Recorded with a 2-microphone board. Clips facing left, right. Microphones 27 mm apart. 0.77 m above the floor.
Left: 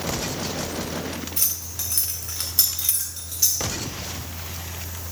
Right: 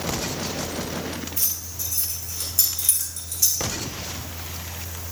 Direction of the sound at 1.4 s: 65° left (ahead or behind).